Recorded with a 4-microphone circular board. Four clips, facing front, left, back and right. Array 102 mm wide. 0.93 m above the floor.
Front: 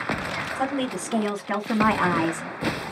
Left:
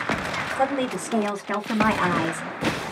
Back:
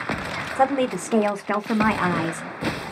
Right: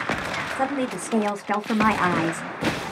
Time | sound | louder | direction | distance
0.6 | a woman speaking | left 2 dB, back 7 dB | 175° right | 1.0 m